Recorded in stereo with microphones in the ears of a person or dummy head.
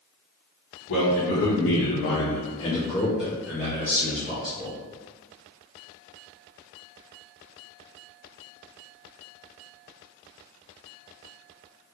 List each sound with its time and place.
0.9 s a man speaking: 70° left (ahead or behind), 1.1 m; by 4.8 s 30° right (ahead or behind), 1.4 m